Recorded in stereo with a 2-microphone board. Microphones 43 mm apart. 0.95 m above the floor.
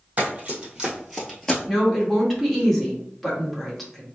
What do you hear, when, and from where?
0.2 s running footsteps: 30° right (ahead or behind), 1.6 m; by 1.6 s 15° left (ahead or behind), 1.0 m
1.7 s a woman speaking: 5° left (ahead or behind), 1.3 m